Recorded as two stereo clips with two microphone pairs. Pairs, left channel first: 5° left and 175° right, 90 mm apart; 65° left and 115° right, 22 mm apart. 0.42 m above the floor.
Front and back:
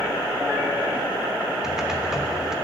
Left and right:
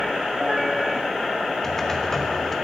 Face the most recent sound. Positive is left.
turn(degrees=115)